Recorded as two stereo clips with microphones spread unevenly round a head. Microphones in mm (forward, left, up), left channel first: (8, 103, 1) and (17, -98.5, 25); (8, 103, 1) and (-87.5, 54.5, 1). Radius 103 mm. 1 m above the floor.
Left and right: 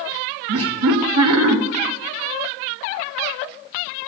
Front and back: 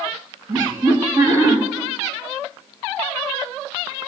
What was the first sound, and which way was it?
Laughter, 85° right.